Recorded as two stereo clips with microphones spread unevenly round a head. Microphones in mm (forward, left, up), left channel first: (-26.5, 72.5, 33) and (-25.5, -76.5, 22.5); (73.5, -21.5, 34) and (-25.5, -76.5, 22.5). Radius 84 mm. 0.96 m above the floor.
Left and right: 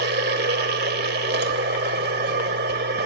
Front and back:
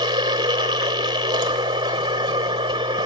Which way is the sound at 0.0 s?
100° right.